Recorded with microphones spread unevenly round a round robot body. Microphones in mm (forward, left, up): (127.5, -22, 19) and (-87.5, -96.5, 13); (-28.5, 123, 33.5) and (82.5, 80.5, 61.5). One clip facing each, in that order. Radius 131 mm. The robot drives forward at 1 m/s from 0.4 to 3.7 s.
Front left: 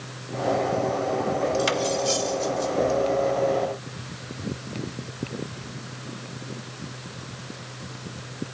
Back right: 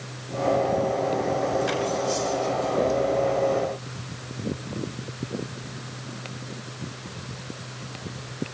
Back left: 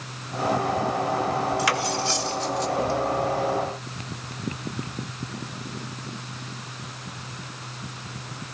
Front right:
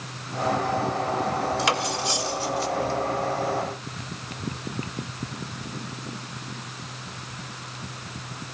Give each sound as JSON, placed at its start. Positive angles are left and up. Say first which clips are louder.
{"t": 1.6, "sound": "cutlery clinking", "louder": "front left 1 dB, back left 1 dB", "azimuth_deg": 45, "distance_m": 2.5}